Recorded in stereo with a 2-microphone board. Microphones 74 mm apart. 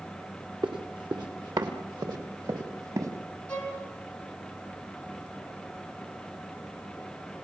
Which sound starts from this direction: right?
Running footsteps, at 0.6 s.